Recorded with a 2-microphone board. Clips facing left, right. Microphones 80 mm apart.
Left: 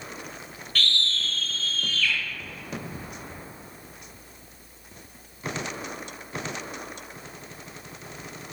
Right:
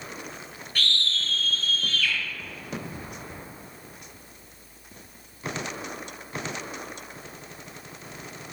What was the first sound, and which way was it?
A scream, 15° right (ahead or behind).